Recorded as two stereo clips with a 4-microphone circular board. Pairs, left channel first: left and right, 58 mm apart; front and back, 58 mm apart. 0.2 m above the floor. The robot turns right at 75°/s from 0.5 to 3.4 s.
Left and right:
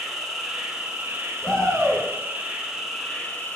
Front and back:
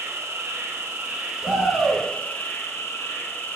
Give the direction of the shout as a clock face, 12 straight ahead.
7 o'clock.